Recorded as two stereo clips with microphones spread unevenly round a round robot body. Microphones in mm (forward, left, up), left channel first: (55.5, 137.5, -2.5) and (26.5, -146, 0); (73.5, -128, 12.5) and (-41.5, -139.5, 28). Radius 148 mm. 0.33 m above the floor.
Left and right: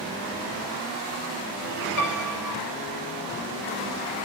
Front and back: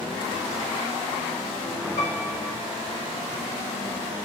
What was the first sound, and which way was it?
A piano, 55° left.